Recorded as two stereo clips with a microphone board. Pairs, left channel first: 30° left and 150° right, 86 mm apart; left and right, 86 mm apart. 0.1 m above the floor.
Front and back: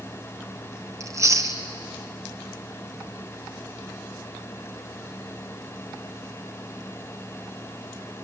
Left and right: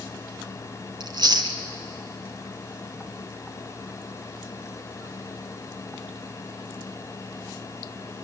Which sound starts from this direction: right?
Chewing, at 1.0 s.